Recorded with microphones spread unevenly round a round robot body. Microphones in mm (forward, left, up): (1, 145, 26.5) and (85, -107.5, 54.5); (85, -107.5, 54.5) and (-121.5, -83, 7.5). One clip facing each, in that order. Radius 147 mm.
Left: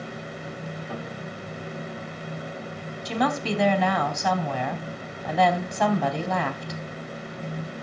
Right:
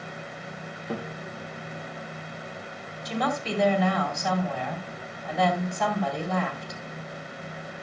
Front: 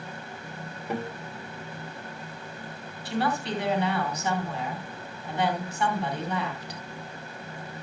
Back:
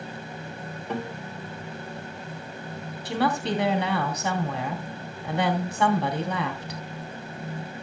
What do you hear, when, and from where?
0.9 s a guitar: 95° right, 2.5 m
3.0 s a woman speaking: 130° left, 2.5 m